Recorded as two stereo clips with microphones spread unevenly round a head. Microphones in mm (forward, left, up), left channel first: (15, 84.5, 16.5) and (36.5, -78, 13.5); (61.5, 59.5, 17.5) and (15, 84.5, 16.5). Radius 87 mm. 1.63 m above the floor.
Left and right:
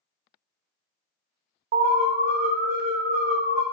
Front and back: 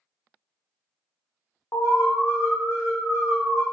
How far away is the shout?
I don't hear a shout.